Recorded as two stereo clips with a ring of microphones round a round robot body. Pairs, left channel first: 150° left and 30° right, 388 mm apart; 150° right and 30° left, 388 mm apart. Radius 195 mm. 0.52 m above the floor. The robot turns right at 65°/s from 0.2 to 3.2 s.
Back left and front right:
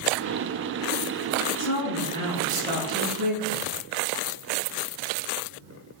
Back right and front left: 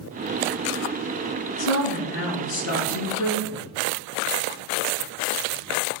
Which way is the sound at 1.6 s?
170° right.